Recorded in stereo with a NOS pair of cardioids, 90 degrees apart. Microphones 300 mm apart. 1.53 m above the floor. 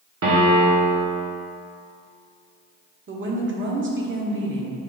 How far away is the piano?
About 1.4 m.